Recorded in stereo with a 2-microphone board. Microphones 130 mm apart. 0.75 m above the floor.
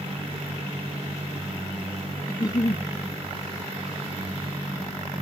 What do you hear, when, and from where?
2.3 s a giggle: 30° left (ahead or behind)